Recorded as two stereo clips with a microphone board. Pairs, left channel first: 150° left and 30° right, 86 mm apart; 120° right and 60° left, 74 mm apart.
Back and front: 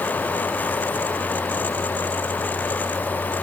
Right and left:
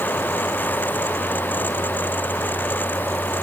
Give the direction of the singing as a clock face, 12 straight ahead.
I don't hear singing.